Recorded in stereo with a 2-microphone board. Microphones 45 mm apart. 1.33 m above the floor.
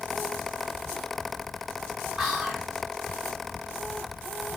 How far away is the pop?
No pop in this recording.